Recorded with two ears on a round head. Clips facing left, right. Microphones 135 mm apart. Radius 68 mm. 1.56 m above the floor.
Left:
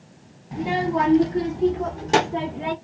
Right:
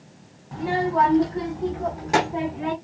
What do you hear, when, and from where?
0.5 s a child speaking: 20° left (ahead or behind), 0.9 m; by 2.7 s 30° left (ahead or behind), 3.5 m